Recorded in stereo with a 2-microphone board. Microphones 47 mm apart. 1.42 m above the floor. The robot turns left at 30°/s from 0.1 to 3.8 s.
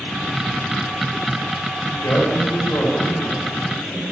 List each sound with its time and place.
2.0 s a man speaking: 95° left, 7.5 m; by 4.0 s 40° left, 7.5 m